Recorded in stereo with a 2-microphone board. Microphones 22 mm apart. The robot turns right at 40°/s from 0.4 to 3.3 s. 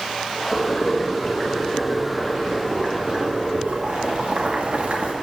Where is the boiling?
125° left, 1.7 m; by 5.1 s 120° right, 1.7 m.